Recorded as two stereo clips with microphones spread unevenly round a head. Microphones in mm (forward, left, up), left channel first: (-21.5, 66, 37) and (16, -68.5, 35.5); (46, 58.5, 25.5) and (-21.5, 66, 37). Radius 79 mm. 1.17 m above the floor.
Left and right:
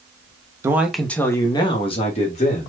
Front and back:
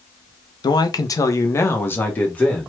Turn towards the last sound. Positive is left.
turn(degrees=65)